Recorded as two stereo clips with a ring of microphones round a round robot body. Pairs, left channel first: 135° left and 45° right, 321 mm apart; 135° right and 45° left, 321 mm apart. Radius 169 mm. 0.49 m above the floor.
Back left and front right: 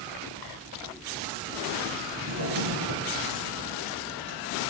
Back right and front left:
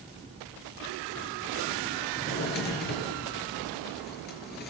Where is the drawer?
75° right, 3.5 m.